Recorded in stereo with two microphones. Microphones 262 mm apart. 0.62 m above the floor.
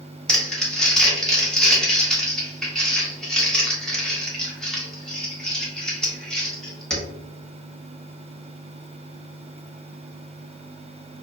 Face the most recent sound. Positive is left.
turn(degrees=5)  # may be behind; listen again after turning